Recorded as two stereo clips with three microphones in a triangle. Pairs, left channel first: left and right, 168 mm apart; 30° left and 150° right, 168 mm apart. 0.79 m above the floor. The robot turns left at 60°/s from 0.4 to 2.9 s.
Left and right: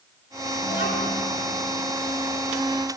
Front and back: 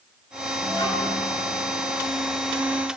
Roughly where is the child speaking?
Left.